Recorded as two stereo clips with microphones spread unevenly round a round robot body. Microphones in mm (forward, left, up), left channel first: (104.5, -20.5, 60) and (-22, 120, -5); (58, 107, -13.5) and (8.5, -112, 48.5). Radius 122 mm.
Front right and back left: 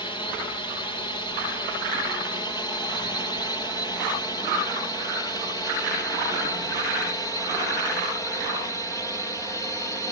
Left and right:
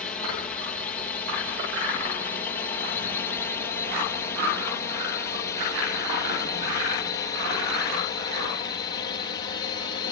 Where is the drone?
30° left; by 10.1 s 40° left.